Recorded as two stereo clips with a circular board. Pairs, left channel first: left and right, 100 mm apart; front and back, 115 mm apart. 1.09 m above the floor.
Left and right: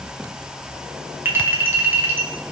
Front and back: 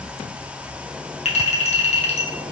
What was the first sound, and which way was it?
A clink, 20° right.